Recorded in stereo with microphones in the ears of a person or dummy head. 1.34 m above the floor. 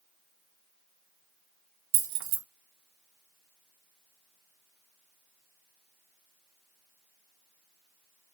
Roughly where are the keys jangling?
Right.